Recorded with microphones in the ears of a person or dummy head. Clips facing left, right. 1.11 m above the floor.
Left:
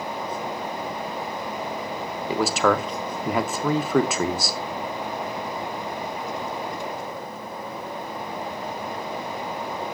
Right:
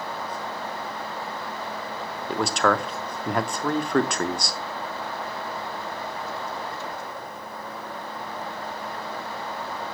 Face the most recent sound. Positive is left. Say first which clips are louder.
# left 2 dB
turn(degrees=5)  # may be behind; listen again after turning